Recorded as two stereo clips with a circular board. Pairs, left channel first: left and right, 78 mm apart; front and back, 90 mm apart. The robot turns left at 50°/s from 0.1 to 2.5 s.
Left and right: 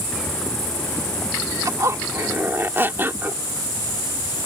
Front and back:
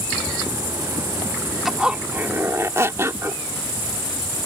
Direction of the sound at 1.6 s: 95° right.